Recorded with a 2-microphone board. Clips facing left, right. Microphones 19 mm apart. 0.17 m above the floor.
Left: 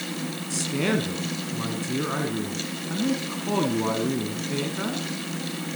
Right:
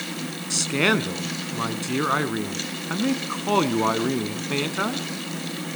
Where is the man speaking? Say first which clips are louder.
Right 4 dB; 40° right (ahead or behind), 1.3 m.